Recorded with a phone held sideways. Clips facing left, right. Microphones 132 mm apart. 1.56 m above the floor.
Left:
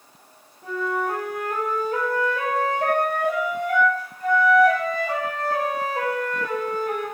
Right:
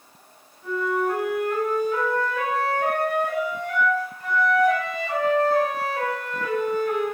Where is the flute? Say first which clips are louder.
Right 2 dB; 45° left (ahead or behind), 9.5 m.